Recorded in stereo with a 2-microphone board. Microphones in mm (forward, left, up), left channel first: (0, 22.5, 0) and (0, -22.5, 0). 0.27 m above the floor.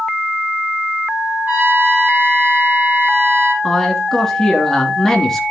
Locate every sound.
1.5 s a trumpet: 45° right (ahead or behind), 4.5 m
3.6 s a man speaking: 10° left (ahead or behind), 3 m